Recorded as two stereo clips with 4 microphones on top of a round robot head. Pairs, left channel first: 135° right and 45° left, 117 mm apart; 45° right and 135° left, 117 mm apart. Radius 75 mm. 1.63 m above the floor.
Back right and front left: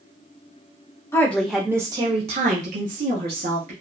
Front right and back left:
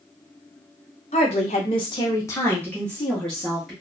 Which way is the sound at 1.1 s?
70° right.